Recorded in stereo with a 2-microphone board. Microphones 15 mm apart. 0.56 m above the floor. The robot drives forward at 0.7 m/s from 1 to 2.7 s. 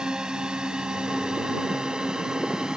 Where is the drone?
70° right (ahead or behind); by 2.8 s 75° right (ahead or behind).